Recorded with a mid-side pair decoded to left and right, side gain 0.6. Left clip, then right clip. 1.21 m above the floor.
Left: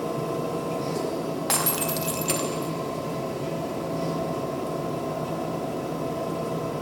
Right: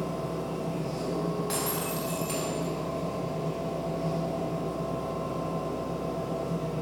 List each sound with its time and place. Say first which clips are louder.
0.0 s a machine running: left 5 dB; 65° left, 1.9 m
1.5 s breaking glass: left 5 dB; 60° left, 1.1 m